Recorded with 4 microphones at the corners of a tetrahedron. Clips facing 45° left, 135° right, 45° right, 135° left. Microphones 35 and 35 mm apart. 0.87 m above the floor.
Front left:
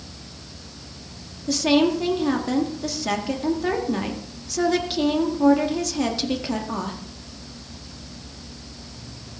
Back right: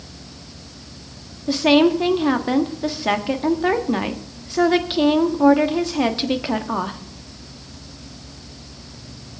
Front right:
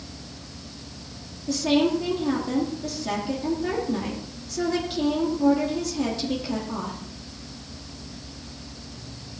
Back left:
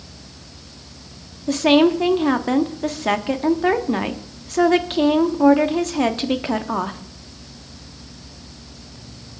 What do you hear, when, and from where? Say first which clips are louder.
1.5 s a woman speaking: back right 4 dB, back left 7 dB; 165° left, 1.3 m